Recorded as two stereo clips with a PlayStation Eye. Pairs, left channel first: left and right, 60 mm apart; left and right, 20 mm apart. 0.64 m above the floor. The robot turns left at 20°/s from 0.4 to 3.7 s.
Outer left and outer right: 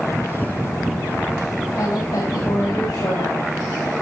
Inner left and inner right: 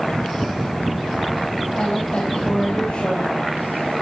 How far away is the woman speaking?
About 4.5 m.